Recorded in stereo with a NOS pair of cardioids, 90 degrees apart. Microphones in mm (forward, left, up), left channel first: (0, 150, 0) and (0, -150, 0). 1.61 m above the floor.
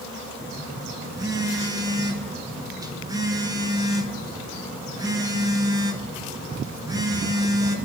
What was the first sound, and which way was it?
A phone buzzing, 15° right.